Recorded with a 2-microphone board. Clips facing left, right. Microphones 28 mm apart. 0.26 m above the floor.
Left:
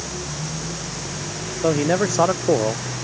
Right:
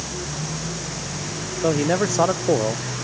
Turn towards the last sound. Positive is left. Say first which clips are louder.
# left 1 dB
turn(degrees=10)  # may be behind; listen again after turning